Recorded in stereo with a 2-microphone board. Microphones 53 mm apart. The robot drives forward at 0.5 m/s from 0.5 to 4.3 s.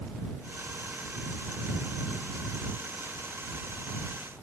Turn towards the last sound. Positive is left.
No sound to turn to.